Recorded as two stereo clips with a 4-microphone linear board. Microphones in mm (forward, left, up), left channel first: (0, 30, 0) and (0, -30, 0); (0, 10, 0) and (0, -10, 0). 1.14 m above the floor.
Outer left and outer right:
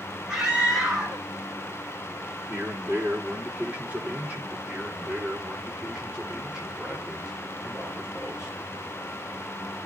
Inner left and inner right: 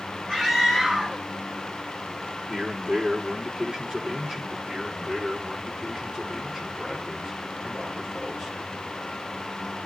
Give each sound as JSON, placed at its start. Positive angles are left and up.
{"t": 0.3, "sound": "a scream", "side_deg": -20, "distance_m": 4.0}
{"t": 2.5, "sound": "a man speaking", "side_deg": -20, "distance_m": 4.0}
{"t": 4.7, "sound": "a man speaking", "side_deg": -20, "distance_m": 4.5}